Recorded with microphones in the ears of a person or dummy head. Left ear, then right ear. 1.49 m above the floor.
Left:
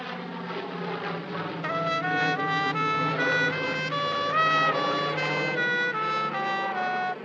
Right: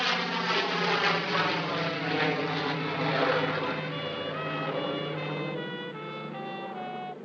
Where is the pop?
No pop in this recording.